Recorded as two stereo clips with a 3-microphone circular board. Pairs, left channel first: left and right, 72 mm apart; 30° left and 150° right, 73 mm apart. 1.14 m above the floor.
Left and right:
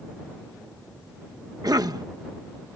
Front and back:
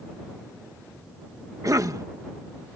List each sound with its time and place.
1.6 s a cough: 115° right